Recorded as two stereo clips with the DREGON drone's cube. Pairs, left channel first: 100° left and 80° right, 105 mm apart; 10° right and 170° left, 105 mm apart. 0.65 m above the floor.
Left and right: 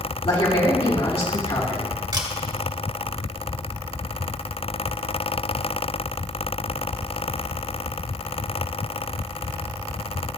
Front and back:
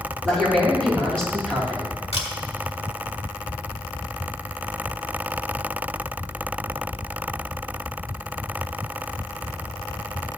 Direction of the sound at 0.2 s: 75° left.